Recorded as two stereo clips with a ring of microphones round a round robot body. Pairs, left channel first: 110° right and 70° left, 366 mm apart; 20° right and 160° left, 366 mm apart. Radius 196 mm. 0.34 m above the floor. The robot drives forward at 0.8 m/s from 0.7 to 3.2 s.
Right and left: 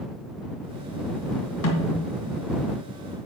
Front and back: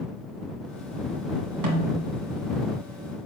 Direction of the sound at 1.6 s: 160° right.